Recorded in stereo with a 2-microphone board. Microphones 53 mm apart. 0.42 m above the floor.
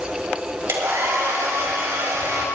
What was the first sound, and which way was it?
A hair dryer, 55° right (ahead or behind).